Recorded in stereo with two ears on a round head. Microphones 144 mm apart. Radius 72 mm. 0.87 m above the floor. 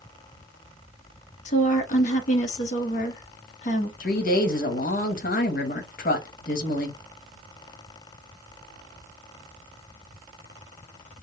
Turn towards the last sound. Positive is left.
turn(degrees=55)  # may be behind; listen again after turning